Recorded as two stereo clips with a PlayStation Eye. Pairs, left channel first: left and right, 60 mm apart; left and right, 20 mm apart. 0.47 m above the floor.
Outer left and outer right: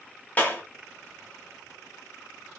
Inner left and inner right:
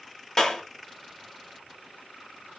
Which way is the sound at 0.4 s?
30° left (ahead or behind).